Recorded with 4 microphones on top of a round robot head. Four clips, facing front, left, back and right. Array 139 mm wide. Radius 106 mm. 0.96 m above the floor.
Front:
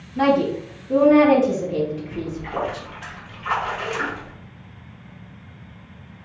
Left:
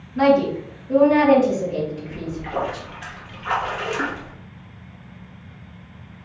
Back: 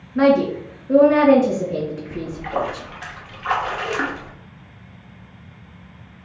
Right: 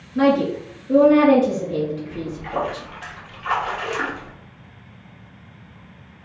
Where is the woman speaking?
155° right, 2.5 m.